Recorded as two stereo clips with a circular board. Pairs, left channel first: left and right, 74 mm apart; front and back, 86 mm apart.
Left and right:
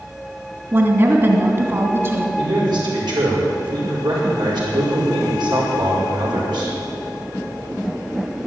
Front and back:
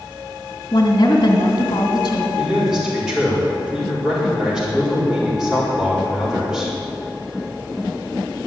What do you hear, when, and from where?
0.7 s a woman speaking: 35° right, 2.5 m
2.4 s a man speaking: 100° right, 5 m